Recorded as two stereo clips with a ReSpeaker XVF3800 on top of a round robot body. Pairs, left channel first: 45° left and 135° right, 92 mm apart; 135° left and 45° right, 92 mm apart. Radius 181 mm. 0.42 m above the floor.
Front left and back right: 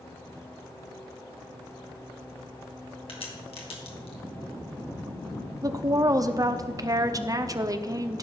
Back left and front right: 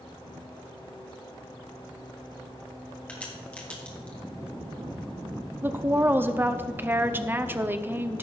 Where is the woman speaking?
105° right, 1.0 m.